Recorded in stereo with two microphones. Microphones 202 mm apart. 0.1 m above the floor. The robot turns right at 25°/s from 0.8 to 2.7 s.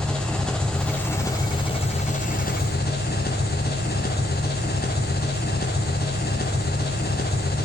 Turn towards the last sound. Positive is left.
turn(degrees=50)